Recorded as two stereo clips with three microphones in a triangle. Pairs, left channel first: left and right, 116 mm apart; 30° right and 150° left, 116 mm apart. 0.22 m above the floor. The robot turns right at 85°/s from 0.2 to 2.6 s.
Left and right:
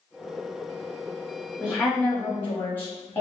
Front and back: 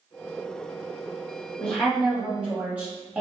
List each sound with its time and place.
1.6 s a woman speaking: 25° left, 1.1 m; by 3.2 s 110° left, 1.1 m